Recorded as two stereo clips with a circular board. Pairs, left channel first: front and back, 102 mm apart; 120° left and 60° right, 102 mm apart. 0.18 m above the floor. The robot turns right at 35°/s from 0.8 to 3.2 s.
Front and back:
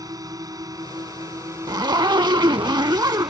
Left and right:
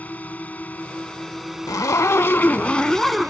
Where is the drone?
175° right; by 3.3 s 90° right.